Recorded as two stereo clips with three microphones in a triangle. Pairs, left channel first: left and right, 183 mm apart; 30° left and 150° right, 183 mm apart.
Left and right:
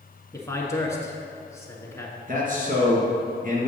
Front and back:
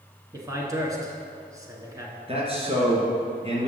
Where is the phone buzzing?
I don't hear a phone buzzing.